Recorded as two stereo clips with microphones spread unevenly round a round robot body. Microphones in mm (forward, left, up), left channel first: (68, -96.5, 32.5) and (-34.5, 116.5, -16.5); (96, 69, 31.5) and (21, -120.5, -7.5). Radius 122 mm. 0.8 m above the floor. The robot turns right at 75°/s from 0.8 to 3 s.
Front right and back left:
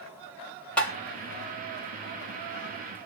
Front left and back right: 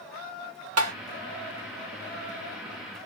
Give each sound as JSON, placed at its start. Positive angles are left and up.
{"t": 0.8, "sound": "tapping", "azimuth_deg": -150, "distance_m": 0.9}